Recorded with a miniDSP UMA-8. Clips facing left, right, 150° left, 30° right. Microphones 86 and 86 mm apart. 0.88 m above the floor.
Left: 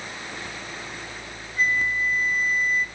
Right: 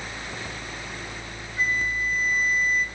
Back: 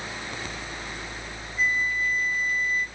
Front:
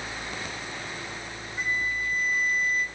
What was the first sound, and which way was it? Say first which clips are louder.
A flute: left 2 dB, back 4 dB; 10° right.